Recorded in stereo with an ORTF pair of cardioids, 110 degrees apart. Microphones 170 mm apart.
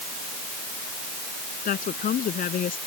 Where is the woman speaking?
55° left.